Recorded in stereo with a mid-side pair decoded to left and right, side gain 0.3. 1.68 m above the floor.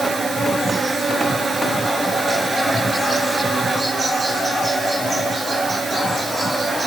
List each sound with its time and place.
0.0 s an insect: 55° right, 5 m